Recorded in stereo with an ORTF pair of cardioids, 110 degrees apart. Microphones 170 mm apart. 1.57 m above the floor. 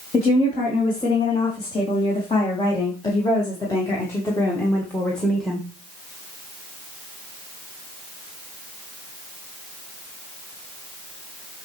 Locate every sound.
0.1 s a woman speaking: 40° left, 4.5 m; by 5.7 s straight ahead, 1.9 m